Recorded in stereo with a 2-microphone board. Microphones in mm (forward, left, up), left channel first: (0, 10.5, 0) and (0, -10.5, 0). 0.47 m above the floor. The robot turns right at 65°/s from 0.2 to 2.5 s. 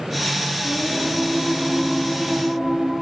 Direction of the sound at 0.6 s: 110° left.